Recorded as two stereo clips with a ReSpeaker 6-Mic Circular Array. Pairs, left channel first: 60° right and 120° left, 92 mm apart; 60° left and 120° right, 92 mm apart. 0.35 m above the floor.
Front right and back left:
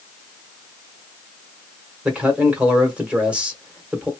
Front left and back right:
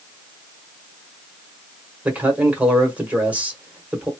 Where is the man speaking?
175° right, 1.5 m.